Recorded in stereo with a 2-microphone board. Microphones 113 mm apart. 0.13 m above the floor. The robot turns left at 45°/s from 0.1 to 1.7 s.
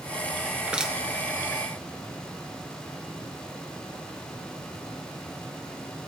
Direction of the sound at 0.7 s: 10° right (ahead or behind).